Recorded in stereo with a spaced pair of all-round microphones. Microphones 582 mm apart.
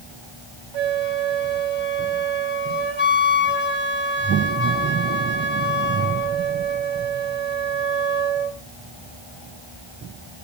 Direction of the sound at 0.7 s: 50° right (ahead or behind).